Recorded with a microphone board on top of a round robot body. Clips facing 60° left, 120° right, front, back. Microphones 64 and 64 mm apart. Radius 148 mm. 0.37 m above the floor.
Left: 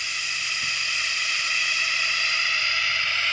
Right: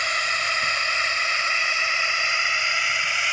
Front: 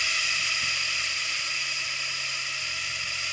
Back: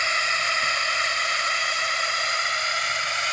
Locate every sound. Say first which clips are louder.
0.0 s a drone: right 7 dB, back 6 dB; 150° right; by 3.3 s 165° left